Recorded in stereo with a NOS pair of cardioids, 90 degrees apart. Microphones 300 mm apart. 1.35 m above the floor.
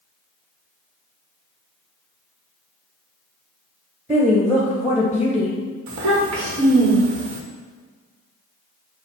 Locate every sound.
4.1 s a woman speaking: 5° right, 0.9 m
5.9 s a child speaking: 65° right, 1.5 m